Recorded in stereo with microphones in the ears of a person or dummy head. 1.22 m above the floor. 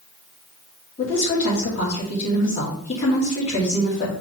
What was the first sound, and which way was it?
A woman speaking, 35° left (ahead or behind).